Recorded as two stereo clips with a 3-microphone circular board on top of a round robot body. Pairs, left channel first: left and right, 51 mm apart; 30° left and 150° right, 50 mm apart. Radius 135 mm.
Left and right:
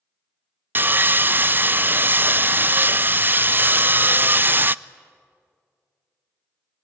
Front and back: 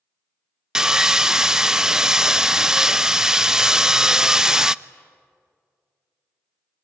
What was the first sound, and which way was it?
Sawing, 75° right.